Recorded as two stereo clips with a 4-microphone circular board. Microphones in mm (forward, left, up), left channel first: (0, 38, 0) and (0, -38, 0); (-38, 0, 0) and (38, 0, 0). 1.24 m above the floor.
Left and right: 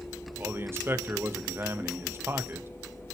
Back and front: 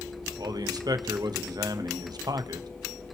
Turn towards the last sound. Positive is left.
turn(degrees=-30)